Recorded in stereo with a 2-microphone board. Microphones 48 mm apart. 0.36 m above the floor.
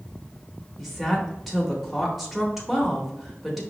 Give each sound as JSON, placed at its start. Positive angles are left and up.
{"t": 0.8, "sound": "a woman speaking", "side_deg": 0, "distance_m": 0.8}